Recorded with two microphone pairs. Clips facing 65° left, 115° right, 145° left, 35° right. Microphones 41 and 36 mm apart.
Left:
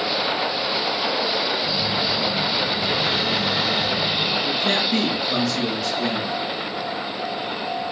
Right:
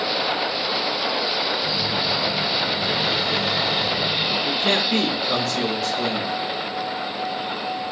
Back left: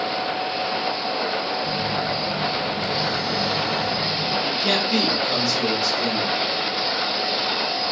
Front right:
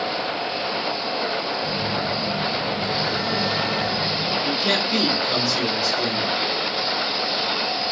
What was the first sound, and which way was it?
A phone buzzing, 40° right.